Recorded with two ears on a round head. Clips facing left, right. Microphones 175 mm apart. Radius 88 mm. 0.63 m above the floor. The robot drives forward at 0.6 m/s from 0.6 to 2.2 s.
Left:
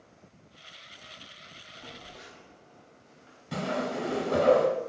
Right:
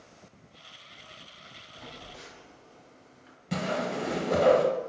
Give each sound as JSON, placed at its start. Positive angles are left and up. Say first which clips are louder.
{"t": 1.8, "sound": "a phone buzzing", "louder": "right 1 dB", "side_deg": -75, "distance_m": 1.2}
{"t": 3.5, "sound": "a whoosh", "louder": "even", "side_deg": -30, "distance_m": 0.7}